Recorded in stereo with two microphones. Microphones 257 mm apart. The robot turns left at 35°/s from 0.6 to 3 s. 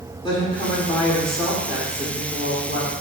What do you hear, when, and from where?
0.2 s a woman speaking: 25° left, 1.6 m; by 2.9 s 55° right, 1.6 m